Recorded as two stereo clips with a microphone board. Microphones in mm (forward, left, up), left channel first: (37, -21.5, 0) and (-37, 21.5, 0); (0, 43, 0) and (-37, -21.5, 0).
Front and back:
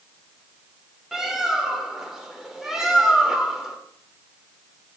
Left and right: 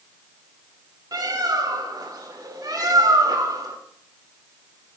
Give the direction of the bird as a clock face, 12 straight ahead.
4 o'clock.